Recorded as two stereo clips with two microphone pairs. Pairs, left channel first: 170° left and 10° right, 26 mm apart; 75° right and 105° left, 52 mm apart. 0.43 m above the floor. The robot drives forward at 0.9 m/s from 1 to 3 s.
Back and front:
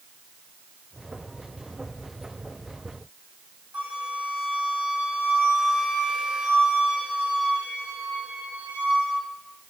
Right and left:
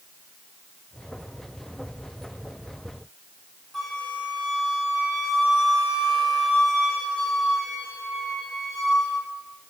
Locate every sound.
3.7 s a flute: 10° left, 1.8 m